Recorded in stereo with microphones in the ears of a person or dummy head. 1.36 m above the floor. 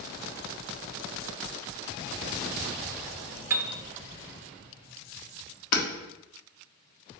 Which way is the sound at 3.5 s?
10° right (ahead or behind).